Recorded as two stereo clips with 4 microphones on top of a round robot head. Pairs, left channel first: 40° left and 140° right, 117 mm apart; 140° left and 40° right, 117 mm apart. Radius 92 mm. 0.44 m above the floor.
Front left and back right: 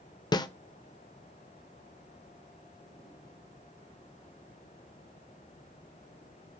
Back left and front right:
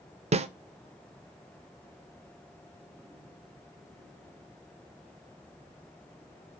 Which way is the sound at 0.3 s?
15° right.